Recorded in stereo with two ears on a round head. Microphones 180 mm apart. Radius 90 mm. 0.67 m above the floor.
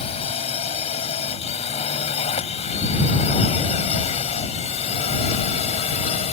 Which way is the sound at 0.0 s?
35° left (ahead or behind).